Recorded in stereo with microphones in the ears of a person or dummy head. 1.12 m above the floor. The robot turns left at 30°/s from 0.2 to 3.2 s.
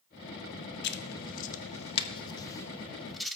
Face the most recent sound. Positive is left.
turn(degrees=0)  # may be behind; listen again after turning